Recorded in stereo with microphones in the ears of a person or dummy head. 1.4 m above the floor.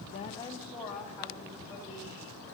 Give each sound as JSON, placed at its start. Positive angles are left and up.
{"t": 0.1, "sound": "a woman speaking", "side_deg": 40, "distance_m": 0.5}